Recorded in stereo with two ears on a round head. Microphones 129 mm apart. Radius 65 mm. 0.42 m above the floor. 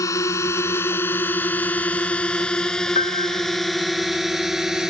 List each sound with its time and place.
0.0 s a drone: 25° left (ahead or behind); by 4.9 s 5° right (ahead or behind)
3.0 s a piano: 45° left (ahead or behind)